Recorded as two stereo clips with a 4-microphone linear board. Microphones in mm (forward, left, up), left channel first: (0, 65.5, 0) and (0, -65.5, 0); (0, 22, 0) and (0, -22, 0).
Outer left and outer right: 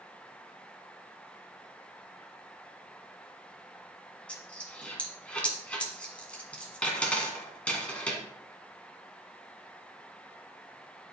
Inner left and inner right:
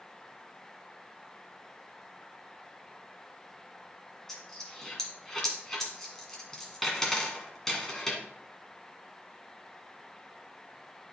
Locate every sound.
4.3 s a dropped coin: 10° left (ahead or behind), 1.8 m